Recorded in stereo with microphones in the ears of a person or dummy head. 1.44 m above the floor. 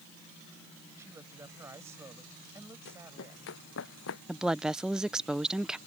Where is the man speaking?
15° right (ahead or behind).